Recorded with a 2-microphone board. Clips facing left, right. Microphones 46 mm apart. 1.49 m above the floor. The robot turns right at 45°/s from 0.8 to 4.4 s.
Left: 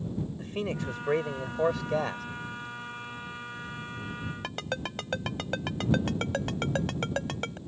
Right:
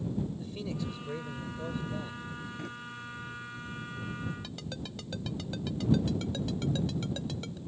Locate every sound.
0.4 s a man speaking: 50° left; by 2.2 s 115° left
2.6 s a drawer: 60° right (ahead or behind); by 2.7 s 55° right (ahead or behind)
4.4 s a ringtone: 50° left (ahead or behind)